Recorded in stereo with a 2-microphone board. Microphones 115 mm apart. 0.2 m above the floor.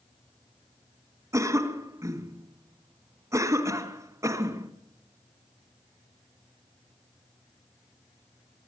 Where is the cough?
25° right (ahead or behind), 2.0 m.